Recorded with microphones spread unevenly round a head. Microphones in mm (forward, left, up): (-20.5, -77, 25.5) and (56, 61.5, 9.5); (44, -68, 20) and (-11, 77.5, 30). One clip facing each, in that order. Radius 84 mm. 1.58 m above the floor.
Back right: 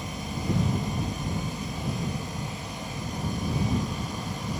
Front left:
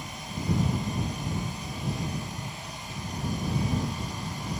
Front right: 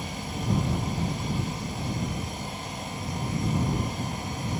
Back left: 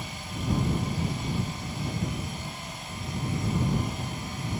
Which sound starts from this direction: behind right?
An insect, at 0.0 s.